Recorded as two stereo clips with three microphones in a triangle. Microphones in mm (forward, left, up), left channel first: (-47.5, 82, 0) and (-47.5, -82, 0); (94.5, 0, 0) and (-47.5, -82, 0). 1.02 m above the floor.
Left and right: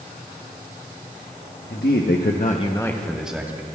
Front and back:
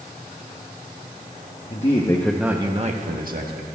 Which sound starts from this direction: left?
A man speaking, at 1.7 s.